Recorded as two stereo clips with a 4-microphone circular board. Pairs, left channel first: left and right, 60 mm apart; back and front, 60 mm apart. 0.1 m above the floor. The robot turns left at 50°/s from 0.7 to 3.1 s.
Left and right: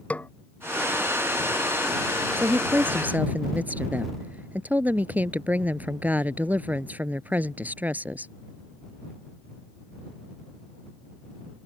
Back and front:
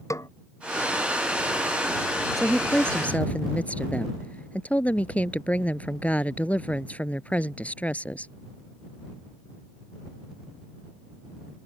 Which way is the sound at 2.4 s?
95° right.